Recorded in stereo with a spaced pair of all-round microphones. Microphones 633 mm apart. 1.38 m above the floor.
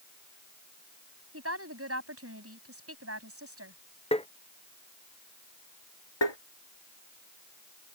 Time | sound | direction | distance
1.3 | a woman speaking | 20° right (ahead or behind) | ?
4.1 | tapping | 10° left (ahead or behind) | ?
6.2 | tapping | 45° left (ahead or behind) | ?